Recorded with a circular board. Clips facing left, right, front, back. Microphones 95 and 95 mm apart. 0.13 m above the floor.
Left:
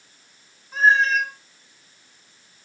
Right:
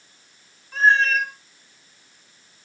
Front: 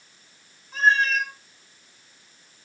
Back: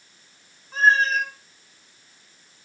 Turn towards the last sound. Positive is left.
turn(degrees=165)